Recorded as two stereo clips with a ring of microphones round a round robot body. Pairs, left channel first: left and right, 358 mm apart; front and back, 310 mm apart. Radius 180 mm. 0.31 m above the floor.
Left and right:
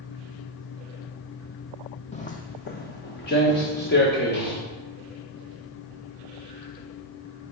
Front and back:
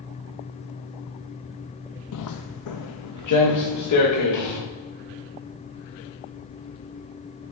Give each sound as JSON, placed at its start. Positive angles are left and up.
{"t": 2.1, "sound": "footsteps", "azimuth_deg": 20, "distance_m": 0.5}